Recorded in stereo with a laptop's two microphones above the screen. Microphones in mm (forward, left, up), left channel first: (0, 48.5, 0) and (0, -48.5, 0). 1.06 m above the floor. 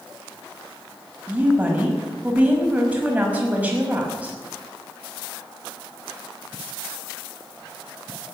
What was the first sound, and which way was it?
A woman speaking, 15° right (ahead or behind).